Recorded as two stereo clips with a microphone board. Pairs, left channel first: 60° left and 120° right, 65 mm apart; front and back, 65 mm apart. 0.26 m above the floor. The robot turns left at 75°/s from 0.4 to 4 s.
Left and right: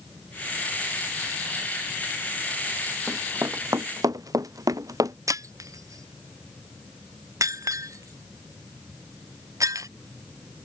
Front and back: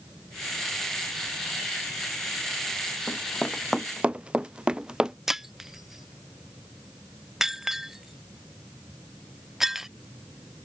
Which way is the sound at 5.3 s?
95° right.